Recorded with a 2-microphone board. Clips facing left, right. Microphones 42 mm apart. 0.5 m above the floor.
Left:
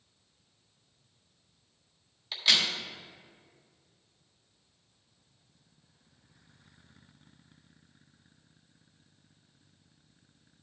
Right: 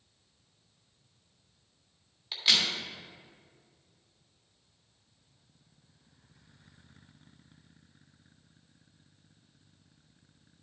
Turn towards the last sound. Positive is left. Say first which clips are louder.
# left 1 dB
turn(degrees=-5)  # may be behind; listen again after turning